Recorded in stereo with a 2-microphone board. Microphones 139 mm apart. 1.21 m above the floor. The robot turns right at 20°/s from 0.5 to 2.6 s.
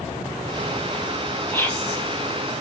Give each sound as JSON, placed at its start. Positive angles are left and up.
{"t": 1.5, "sound": "whispering", "side_deg": 15, "distance_m": 0.6}